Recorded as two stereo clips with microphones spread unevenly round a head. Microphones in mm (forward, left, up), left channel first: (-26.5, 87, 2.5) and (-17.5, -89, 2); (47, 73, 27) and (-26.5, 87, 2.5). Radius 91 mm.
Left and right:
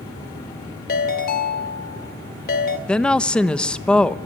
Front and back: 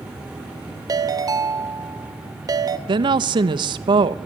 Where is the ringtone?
125° left, 2 m.